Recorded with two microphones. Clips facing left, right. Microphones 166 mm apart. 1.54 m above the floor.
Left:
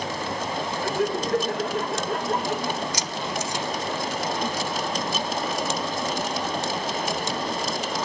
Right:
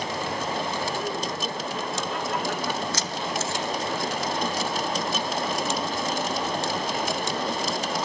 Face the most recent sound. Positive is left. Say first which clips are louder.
# even
turn(degrees=15)  # may be behind; listen again after turning